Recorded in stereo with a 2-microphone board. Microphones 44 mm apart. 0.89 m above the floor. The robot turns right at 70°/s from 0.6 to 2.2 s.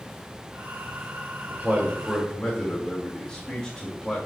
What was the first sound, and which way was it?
A man speaking, 35° right (ahead or behind).